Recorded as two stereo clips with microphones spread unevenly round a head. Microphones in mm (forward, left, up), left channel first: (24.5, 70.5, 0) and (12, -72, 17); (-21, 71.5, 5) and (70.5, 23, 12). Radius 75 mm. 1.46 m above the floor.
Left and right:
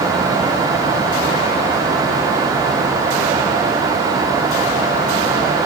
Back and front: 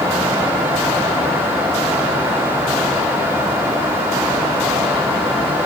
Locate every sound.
Only background noise.